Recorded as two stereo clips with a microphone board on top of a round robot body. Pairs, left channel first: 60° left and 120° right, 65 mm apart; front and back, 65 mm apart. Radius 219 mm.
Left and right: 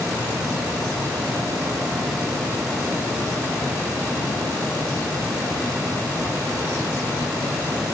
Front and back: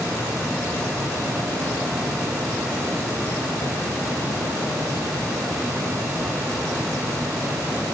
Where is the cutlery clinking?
I don't hear cutlery clinking.